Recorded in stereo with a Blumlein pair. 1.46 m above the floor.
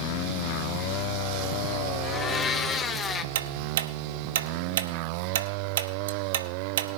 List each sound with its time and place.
2.0 s a blender: 20° left, 0.8 m
3.4 s ticking: 60° right, 0.8 m